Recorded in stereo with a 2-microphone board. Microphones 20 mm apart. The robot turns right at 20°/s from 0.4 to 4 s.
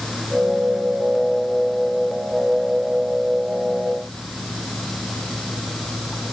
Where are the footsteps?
I don't hear footsteps.